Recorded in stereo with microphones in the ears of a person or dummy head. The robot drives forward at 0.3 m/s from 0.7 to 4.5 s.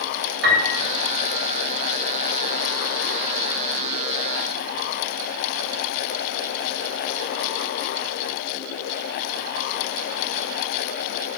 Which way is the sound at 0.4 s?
75° right (ahead or behind).